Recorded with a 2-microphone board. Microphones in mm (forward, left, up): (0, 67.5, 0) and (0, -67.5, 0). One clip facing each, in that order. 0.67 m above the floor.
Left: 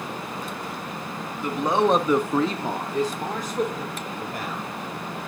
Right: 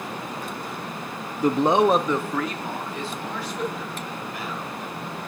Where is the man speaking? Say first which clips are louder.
Right 3 dB; 40° right (ahead or behind), 0.6 m; by 4.6 s 50° left (ahead or behind), 2.5 m.